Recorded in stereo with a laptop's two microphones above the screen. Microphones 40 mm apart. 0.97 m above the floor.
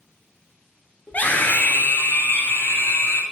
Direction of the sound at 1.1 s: 50° left (ahead or behind).